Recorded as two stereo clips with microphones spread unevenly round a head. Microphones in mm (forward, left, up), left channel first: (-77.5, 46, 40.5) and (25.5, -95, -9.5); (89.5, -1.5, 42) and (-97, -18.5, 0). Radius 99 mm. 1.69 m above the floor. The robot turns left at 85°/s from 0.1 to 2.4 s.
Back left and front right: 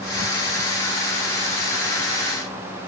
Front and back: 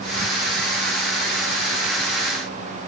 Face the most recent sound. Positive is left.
No sound to turn to.